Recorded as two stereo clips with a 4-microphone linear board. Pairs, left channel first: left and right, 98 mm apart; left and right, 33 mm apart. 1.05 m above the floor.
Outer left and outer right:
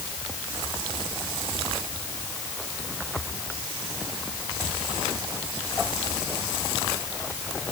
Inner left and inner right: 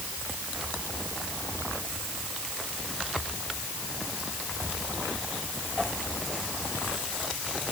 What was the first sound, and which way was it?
Only background noise.